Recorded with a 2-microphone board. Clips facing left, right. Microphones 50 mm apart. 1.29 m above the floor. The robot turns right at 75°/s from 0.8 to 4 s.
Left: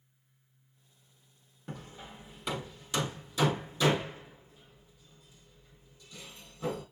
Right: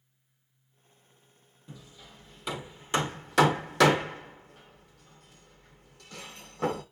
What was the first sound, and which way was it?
Hammering, 60° left (ahead or behind).